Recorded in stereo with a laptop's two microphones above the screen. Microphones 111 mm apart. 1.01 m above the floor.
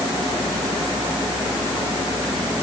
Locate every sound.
Only background noise.